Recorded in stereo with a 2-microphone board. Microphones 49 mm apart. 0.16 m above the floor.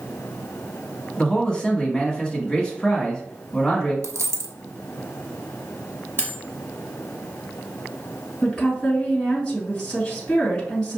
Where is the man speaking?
15° left (ahead or behind), 1.1 m.